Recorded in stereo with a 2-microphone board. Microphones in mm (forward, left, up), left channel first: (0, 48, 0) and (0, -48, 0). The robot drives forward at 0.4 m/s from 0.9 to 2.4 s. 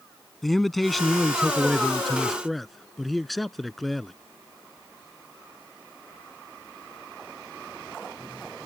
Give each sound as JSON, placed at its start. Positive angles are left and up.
{"t": 0.4, "sound": "a man speaking", "side_deg": 0}